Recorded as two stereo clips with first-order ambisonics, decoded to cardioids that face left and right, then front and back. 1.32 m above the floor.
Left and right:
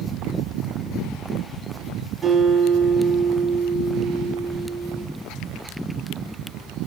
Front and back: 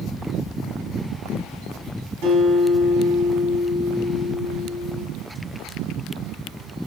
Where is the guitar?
165° right, 4.5 m.